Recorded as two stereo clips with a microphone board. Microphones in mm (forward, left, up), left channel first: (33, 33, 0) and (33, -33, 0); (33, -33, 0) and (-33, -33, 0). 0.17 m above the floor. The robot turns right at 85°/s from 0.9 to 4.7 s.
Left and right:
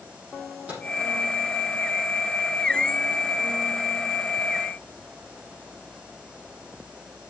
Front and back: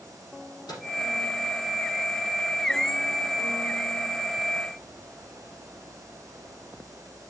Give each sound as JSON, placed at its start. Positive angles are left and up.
{"t": 0.7, "sound": "a microwave", "azimuth_deg": -20, "distance_m": 6.5}